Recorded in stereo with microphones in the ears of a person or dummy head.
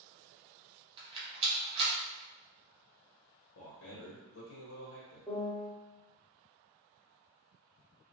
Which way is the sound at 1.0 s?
25° right (ahead or behind).